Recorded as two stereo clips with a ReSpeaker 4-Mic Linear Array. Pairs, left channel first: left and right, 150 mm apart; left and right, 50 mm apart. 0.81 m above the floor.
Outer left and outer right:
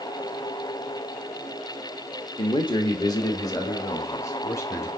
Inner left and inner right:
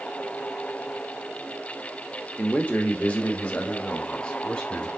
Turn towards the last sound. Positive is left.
turn(degrees=20)  # may be behind; listen again after turning